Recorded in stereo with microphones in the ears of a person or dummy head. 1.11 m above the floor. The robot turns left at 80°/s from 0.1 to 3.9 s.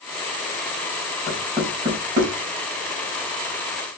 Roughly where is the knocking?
Centre.